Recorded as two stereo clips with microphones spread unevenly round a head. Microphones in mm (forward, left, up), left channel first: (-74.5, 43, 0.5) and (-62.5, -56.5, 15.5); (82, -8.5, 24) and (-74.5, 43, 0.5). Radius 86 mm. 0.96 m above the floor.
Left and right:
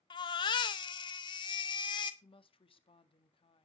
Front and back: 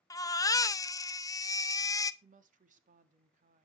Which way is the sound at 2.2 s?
120° left.